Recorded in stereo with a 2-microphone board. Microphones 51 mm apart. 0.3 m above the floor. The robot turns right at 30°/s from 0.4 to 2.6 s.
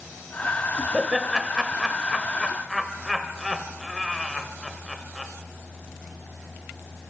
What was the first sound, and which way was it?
Laughter, 10° right (ahead or behind).